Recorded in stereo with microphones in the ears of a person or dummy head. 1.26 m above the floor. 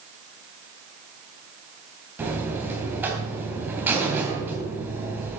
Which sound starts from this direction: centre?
A buzzer, at 2.2 s.